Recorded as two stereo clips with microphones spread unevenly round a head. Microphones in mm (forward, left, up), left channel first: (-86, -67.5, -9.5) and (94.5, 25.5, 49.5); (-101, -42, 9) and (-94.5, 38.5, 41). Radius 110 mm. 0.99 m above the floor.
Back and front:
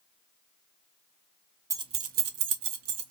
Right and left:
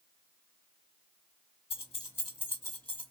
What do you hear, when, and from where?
1.7 s keys jangling: 40° right, 0.5 m; by 3.1 s 30° left, 1.0 m